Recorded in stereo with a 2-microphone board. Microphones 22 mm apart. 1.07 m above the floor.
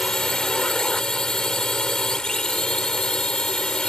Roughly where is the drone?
Left.